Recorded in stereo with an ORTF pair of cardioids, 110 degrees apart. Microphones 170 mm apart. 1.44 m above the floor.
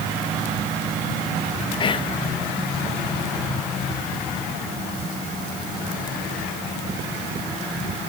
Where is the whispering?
30° left, 0.9 m.